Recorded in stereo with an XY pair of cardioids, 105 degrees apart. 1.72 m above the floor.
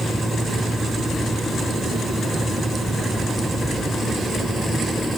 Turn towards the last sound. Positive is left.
turn(degrees=-10)